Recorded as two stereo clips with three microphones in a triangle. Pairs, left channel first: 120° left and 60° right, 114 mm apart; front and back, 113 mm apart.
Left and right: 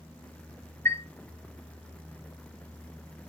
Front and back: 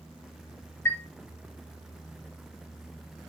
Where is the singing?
I don't hear singing.